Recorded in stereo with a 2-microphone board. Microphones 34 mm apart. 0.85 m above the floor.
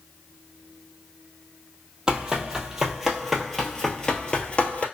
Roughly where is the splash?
I don't hear a splash.